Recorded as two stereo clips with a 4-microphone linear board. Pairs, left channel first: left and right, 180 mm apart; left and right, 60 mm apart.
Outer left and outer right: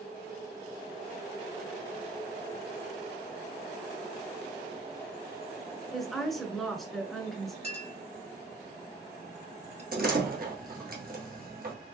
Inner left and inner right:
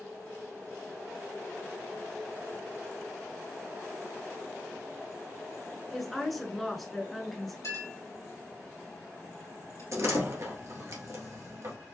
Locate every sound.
5.9 s a woman speaking: centre (ahead or behind), 1.3 m
7.6 s a clink: 60° left (ahead or behind), 2 m
9.9 s a door slam: 55° right (ahead or behind), 1.6 m